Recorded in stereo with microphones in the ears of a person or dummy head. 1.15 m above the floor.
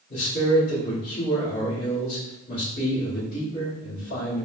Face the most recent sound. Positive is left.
turn(degrees=40)  # may be behind; listen again after turning